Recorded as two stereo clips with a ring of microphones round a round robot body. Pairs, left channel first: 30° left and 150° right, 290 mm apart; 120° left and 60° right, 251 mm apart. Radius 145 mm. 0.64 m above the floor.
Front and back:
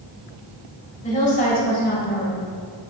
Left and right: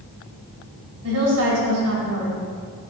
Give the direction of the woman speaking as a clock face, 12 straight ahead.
1 o'clock.